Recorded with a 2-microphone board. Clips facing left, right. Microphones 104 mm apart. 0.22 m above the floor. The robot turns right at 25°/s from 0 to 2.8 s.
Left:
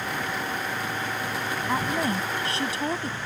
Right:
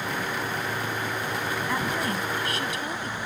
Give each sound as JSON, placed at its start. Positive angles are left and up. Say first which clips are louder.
{"t": 1.7, "sound": "a woman speaking", "louder": "left 4 dB", "side_deg": 20}